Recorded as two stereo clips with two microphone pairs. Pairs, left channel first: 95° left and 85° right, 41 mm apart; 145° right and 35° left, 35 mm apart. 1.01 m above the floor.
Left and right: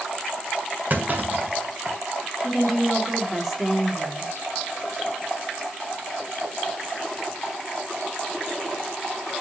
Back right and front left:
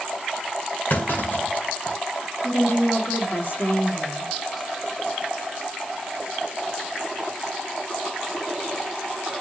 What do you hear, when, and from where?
0.9 s a clunk: 130° right, 2 m
2.4 s a woman speaking: 170° right, 2.5 m